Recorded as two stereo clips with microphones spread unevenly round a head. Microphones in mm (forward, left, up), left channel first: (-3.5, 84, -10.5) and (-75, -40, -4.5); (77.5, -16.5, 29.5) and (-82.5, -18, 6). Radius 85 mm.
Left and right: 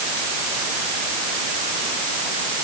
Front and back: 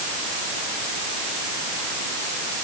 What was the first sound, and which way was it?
Only background noise.